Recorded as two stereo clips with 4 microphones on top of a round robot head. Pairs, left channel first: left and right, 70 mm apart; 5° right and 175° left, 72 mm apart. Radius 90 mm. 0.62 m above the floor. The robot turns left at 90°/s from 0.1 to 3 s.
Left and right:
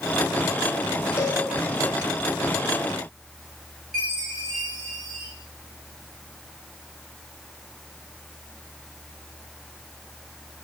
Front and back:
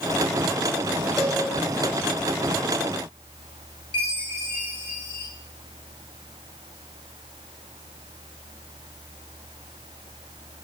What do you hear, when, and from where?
1.2 s a cowbell: 140° left, 6.5 m; by 1.4 s 120° left, 6.5 m
3.9 s a chime: straight ahead, 6 m